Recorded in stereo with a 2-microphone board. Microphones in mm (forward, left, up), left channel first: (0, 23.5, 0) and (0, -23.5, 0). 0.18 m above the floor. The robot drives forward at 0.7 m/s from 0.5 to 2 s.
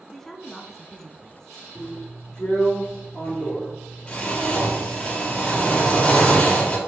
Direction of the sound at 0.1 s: 10° left (ahead or behind).